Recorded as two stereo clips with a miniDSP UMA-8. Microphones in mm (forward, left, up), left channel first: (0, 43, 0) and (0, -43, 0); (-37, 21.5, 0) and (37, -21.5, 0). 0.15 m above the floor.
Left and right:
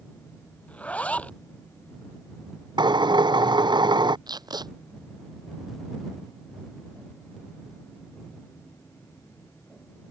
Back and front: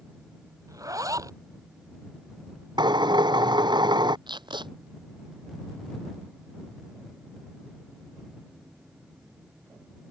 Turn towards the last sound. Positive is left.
turn(degrees=-55)